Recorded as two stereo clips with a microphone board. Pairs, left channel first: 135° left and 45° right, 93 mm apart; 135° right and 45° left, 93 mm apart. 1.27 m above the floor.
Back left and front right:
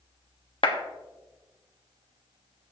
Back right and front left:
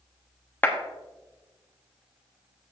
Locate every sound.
0.6 s a clap: 155° left, 1.2 m